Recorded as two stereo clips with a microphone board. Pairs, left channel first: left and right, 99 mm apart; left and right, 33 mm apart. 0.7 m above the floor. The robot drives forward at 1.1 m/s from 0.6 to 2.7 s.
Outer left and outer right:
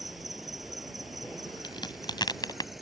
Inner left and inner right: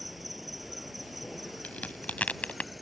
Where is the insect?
Centre (ahead or behind).